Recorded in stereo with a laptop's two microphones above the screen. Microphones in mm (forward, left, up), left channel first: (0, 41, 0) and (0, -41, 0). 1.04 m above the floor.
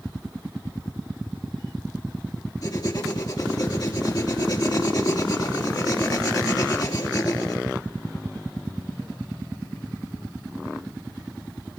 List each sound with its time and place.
2.6 s writing: 50° left (ahead or behind), 2.5 m